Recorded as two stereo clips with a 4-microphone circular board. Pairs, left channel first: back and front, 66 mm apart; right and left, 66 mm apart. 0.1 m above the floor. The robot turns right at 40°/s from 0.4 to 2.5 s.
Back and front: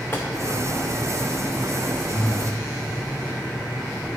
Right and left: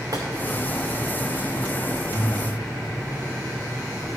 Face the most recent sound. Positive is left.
turn(degrees=90)